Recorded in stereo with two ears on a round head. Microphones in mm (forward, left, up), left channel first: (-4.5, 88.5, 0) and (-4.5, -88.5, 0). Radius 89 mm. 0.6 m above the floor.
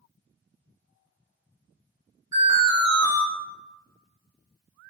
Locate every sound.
2.3 s an alarm: 20° right (ahead or behind), 1.3 m